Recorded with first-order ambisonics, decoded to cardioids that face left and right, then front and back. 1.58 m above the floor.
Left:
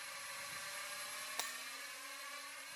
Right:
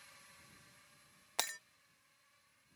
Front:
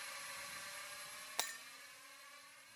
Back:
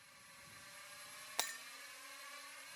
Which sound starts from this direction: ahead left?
A drone, at 0.0 s.